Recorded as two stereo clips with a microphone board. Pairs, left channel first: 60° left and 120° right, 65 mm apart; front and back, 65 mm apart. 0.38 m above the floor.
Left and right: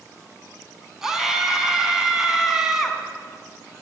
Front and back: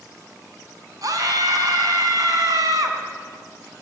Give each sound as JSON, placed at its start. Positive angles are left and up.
{"t": 1.0, "sound": "a scream", "azimuth_deg": 155, "distance_m": 3.5}